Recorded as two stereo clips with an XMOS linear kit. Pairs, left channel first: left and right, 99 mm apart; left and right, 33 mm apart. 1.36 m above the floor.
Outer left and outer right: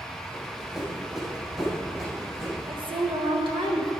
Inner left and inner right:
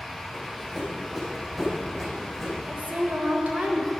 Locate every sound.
0.3 s running footsteps: 5° right (ahead or behind), 3 m
2.7 s a woman speaking: 55° right (ahead or behind), 1.9 m